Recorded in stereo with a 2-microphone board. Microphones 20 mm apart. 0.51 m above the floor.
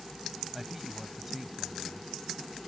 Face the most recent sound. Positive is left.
turn(degrees=-15)  # may be behind; listen again after turning